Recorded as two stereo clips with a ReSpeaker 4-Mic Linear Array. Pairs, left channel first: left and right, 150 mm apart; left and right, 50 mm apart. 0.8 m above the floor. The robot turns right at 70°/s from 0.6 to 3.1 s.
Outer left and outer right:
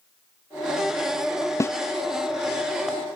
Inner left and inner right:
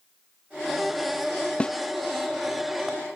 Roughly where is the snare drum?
Left.